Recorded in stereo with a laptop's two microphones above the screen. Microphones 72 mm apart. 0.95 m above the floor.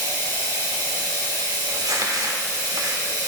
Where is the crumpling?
65° right (ahead or behind), 1.4 m.